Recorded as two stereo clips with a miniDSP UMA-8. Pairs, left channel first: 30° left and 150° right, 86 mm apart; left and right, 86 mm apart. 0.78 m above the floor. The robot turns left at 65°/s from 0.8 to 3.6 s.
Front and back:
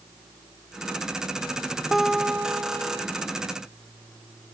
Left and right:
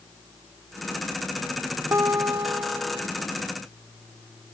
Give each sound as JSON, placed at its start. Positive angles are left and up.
{"t": 1.9, "sound": "a guitar", "azimuth_deg": -60}